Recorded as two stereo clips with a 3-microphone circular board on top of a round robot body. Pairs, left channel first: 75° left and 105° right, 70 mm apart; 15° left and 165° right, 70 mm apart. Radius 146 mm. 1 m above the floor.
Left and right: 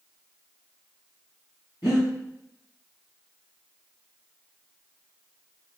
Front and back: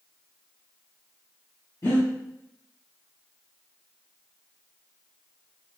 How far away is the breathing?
About 1.8 m.